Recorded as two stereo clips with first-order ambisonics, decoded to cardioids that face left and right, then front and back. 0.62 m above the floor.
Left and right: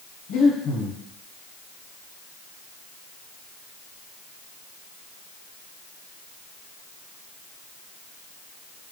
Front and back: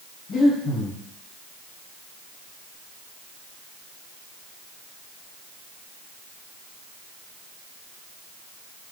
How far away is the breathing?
About 2.5 m.